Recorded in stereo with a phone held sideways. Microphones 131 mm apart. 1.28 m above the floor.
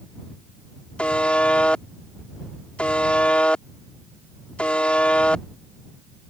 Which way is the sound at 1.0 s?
10° left (ahead or behind).